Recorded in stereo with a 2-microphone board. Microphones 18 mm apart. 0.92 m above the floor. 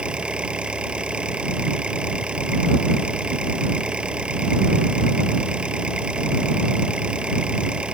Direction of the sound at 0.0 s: 75° right (ahead or behind).